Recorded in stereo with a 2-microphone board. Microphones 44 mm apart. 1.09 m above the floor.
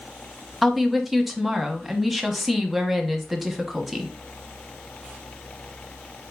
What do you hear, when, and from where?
0.6 s a woman speaking: 5° right (ahead or behind), 0.9 m